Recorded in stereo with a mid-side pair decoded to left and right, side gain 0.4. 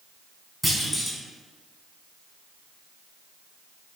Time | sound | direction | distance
0.6 | a clunk | 15° left | 1.7 m